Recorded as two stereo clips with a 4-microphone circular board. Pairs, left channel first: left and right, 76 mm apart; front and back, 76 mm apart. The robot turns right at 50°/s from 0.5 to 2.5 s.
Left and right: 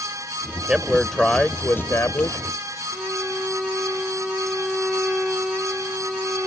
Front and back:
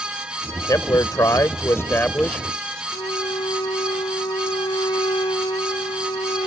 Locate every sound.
0.7 s a man speaking: 15° right; by 2.8 s 75° left
2.9 s a violin: straight ahead